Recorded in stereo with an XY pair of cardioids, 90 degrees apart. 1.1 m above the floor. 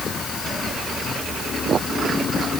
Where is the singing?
I don't hear singing.